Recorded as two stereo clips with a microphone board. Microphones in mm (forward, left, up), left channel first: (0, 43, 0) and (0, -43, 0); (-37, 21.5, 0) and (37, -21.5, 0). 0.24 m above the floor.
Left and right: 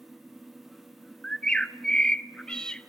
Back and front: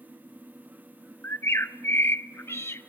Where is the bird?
160° left, 0.6 m.